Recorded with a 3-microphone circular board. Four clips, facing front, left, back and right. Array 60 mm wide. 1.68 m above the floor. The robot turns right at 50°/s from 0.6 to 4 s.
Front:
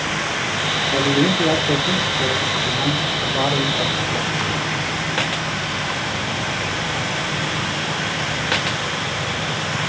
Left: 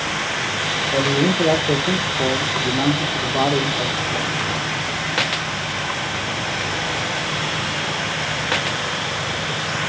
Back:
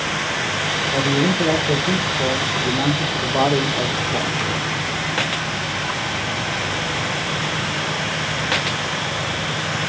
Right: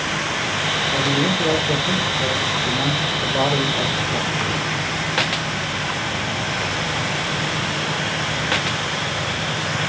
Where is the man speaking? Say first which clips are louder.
Left 4 dB, front 2 dB; 45° left, 1.6 m; by 4.4 s 160° right, 1.6 m.